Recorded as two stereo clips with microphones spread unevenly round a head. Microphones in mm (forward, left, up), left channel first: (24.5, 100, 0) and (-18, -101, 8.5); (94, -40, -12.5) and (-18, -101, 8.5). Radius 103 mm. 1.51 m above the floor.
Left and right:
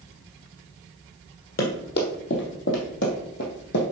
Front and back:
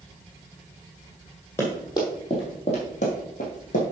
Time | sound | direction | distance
1.6 | running footsteps | 110° left | 2.5 m